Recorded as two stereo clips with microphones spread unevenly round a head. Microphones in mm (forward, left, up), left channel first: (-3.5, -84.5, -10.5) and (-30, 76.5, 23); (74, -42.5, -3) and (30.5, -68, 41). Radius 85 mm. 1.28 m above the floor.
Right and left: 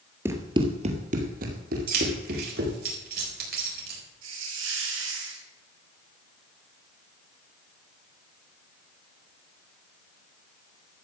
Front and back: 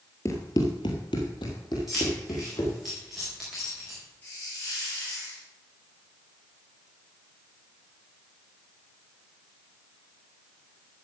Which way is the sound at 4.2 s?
100° left.